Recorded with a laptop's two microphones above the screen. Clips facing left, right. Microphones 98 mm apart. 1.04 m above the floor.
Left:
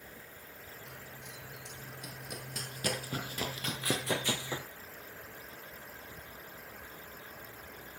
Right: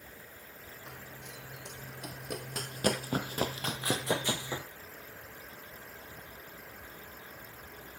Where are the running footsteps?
65° right (ahead or behind), 2.5 m; by 4.7 s 10° right (ahead or behind), 1.5 m.